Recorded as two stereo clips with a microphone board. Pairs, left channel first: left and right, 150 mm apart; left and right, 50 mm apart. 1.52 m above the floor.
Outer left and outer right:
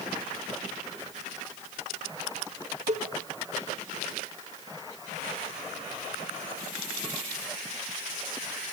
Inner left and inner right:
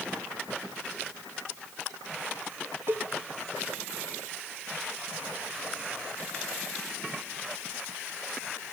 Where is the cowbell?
50° right (ahead or behind), 1.8 m.